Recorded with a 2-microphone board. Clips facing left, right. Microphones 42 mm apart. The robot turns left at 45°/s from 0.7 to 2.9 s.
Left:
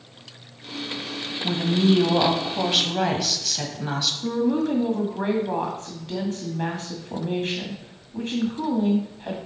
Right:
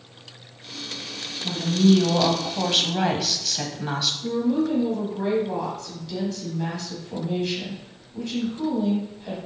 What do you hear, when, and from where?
1.4 s a woman speaking: 60° left, 1.1 m; by 4.1 s 5° right, 1.1 m
4.2 s a woman speaking: 40° left (ahead or behind), 1.9 m